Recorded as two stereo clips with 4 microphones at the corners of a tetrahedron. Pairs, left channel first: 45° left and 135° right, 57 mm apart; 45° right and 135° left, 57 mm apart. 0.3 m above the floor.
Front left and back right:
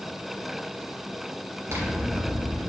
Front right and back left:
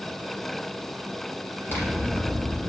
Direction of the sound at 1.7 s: 95° right.